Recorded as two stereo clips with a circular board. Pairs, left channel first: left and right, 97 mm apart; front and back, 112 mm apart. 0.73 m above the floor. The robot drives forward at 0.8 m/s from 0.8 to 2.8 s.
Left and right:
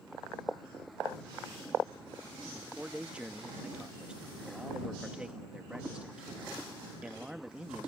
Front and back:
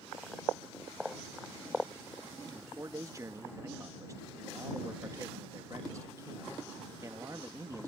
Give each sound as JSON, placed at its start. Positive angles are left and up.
{"t": 2.5, "sound": "a man speaking", "azimuth_deg": -150}